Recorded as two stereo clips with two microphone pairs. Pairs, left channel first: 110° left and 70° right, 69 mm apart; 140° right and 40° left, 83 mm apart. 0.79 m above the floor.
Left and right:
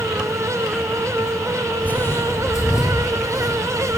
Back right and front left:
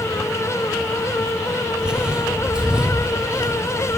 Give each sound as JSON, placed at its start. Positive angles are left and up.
{"t": 1.8, "sound": "footsteps", "azimuth_deg": 100, "distance_m": 0.8}